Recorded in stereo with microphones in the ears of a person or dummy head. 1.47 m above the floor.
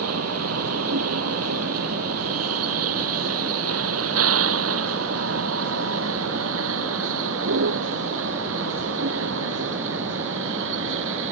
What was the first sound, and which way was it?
A vehicle, 90° right.